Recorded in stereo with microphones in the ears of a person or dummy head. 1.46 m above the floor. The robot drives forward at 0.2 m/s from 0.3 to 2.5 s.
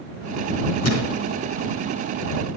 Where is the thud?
45° left (ahead or behind), 5 m.